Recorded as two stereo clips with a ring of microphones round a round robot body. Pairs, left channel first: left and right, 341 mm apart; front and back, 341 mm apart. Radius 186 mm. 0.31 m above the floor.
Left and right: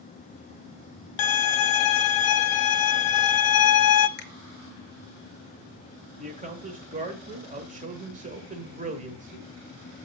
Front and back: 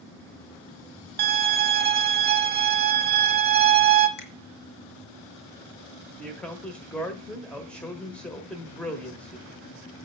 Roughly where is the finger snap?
Ahead left.